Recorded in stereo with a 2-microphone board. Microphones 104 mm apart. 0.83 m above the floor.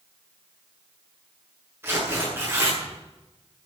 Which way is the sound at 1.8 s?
20° right (ahead or behind).